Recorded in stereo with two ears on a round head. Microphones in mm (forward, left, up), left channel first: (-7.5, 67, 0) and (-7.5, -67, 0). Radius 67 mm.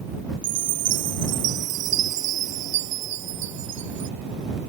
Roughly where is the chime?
Right.